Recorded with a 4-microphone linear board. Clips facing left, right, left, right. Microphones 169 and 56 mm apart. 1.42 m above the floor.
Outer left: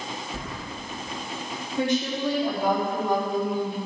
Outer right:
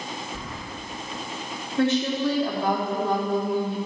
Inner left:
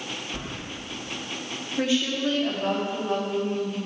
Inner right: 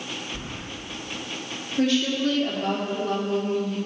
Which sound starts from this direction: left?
Keys jangling, at 0.3 s.